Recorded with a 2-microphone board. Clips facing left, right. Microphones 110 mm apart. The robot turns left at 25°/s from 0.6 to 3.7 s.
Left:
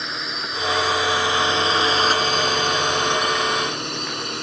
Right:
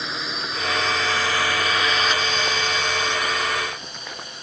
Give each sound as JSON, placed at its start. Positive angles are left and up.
{"t": 0.0, "sound": "a drone", "side_deg": 0}